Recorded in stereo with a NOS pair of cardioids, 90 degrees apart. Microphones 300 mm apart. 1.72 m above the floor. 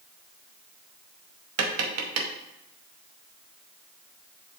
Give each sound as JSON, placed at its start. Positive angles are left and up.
{"t": 1.6, "sound": "tapping", "azimuth_deg": -60, "distance_m": 0.8}